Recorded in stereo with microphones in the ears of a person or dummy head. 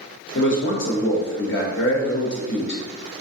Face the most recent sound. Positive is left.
turn(degrees=60)  # may be behind; listen again after turning